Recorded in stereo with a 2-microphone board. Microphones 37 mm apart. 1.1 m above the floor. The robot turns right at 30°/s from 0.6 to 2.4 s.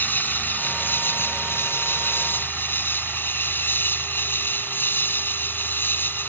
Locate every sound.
0.0 s an insect: 55° left; by 6.3 s 110° left